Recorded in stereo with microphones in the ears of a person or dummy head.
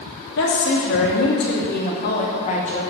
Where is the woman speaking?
75° left (ahead or behind), 3 m; by 2.8 s 40° left (ahead or behind), 2.5 m.